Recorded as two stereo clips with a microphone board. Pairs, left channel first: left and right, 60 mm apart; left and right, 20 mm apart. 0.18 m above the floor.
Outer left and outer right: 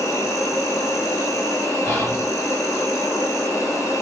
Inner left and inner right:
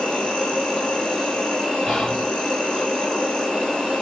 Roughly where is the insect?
Left.